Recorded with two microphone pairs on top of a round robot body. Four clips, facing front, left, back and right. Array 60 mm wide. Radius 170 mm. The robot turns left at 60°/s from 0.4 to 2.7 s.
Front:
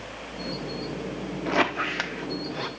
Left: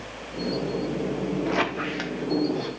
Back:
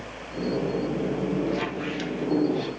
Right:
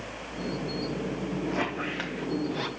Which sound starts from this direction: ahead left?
A squeak, at 1.5 s.